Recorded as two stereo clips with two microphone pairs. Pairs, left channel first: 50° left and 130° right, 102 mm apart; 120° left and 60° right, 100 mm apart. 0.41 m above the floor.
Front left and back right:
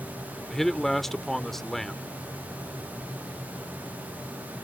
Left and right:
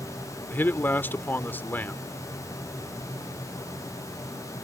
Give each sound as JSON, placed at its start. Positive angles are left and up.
{"t": 0.5, "sound": "a man speaking", "azimuth_deg": 135}